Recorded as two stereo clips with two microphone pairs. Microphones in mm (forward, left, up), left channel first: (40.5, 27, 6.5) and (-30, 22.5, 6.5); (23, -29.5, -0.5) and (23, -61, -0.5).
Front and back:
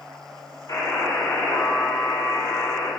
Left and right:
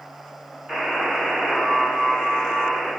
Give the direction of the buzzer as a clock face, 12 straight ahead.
1 o'clock.